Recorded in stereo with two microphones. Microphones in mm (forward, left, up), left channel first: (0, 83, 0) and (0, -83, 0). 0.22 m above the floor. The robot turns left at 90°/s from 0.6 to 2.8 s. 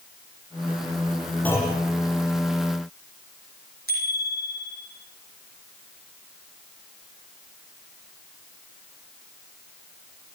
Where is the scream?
No scream in this recording.